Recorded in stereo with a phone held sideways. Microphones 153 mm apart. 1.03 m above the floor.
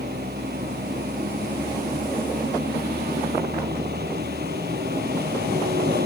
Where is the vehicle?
90° right.